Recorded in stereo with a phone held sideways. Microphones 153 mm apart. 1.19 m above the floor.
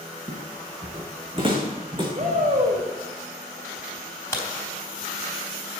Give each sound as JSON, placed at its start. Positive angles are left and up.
{"t": 0.3, "sound": "footsteps", "side_deg": -40, "distance_m": 2.5}
{"t": 2.1, "sound": "a shout", "side_deg": -50, "distance_m": 4.5}
{"t": 4.3, "sound": "a crack", "side_deg": 15, "distance_m": 3.5}